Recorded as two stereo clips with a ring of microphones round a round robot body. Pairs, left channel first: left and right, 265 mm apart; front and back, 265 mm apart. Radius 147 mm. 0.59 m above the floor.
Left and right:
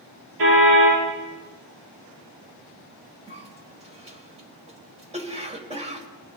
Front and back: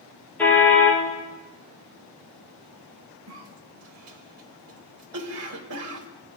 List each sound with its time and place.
0.4 s a car horn: 85° right, 6.5 m
3.3 s a cough: 155° right, 2.5 m